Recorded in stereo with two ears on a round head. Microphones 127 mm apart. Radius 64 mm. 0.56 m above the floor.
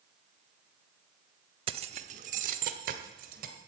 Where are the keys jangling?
40° right (ahead or behind), 0.7 m; by 3.5 s 70° right (ahead or behind), 2 m.